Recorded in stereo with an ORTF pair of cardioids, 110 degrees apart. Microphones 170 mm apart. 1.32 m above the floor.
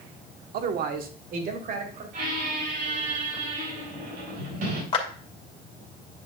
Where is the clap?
35° left, 2 m.